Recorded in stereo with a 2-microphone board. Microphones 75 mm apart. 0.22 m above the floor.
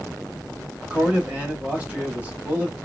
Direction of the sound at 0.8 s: 20° right (ahead or behind).